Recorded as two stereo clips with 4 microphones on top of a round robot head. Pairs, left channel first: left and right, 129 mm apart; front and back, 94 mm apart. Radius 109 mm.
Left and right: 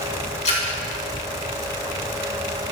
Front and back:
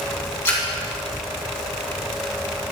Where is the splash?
60° left, 3 m.